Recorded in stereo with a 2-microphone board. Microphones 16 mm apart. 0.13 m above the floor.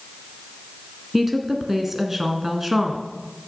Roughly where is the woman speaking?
Centre.